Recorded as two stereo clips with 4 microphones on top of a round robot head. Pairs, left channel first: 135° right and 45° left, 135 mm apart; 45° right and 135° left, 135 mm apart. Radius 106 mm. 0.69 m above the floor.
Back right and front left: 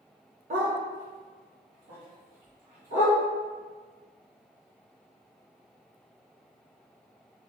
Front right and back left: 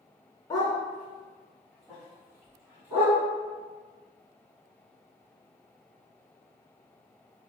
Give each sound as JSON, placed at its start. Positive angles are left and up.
{"t": 0.5, "sound": "a dog barking", "azimuth_deg": 20, "distance_m": 0.8}